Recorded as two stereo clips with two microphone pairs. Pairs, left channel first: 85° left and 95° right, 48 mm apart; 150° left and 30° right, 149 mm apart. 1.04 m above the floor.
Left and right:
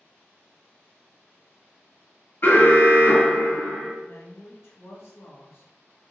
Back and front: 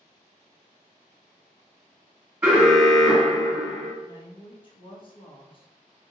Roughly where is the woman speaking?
Left.